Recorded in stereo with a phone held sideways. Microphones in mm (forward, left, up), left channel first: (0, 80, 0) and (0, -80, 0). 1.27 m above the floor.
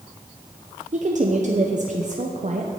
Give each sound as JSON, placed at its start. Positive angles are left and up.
{"t": 0.9, "sound": "a woman speaking", "side_deg": -55, "distance_m": 0.6}